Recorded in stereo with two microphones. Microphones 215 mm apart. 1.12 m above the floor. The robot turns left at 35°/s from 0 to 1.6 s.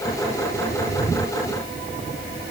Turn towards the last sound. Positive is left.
No sound to turn to.